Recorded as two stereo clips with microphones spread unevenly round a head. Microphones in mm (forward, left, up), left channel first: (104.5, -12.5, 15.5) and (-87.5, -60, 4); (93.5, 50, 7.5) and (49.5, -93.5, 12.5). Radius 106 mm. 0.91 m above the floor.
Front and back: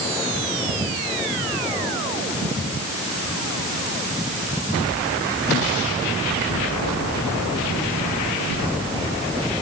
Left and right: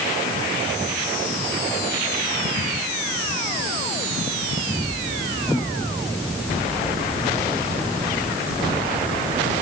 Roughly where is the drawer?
No drawer in this recording.